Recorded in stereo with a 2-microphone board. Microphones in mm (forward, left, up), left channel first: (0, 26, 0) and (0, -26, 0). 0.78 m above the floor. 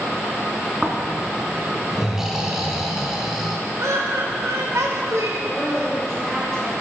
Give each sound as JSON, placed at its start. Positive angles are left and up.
{"t": 0.8, "sound": "snoring", "side_deg": -10, "distance_m": 1.3}
{"t": 3.8, "sound": "laughter", "side_deg": -80, "distance_m": 2.5}
{"t": 5.4, "sound": "a woman speaking", "side_deg": 10, "distance_m": 4.5}